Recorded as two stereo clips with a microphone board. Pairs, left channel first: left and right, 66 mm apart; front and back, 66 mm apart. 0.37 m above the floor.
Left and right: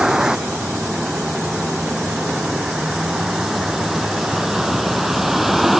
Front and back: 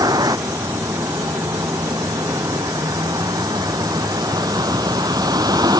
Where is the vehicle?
170° right; by 5.8 s straight behind.